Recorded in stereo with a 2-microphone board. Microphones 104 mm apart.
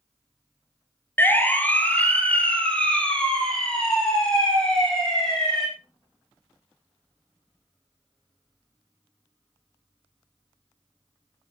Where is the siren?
20° left (ahead or behind), 2.5 m; by 5.7 s 5° left (ahead or behind), 8.5 m.